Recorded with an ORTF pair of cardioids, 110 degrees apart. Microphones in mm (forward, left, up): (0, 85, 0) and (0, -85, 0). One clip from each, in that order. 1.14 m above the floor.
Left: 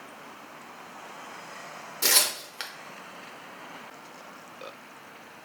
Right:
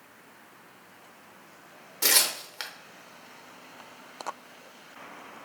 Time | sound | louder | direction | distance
2.0 | tearing paper | even | 5° right | 0.8 m